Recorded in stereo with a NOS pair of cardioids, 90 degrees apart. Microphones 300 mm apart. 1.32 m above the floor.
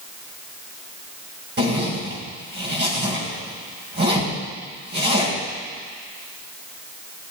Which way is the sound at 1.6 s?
35° right.